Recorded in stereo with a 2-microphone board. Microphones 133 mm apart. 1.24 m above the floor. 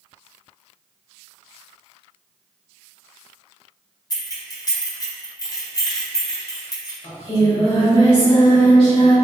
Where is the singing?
45° left (ahead or behind), 1.4 m.